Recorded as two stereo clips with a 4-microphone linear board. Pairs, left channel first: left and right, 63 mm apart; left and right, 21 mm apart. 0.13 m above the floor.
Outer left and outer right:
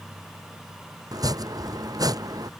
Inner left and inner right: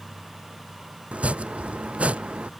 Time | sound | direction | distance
1.1 | chopping | 85° right | ?